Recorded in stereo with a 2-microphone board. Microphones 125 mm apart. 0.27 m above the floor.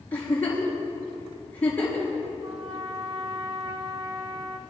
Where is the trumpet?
60° right (ahead or behind), 1.3 m.